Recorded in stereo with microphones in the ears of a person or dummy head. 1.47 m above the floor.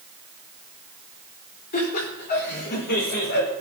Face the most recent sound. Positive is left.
turn(degrees=65)  # may be behind; listen again after turning